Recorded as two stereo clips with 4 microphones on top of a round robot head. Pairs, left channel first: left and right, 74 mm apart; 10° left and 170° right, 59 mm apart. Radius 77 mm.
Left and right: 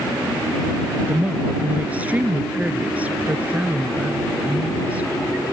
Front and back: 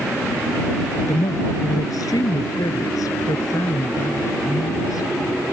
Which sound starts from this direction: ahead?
A woman speaking, at 1.1 s.